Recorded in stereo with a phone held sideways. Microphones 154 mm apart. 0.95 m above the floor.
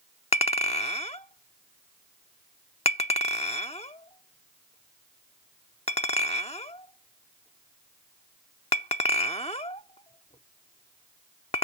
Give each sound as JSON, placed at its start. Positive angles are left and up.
{"t": 0.3, "sound": "a clink", "side_deg": 45}